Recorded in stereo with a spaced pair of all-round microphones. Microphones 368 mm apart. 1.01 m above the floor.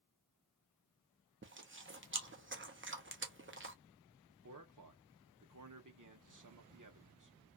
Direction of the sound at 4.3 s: 55° right (ahead or behind).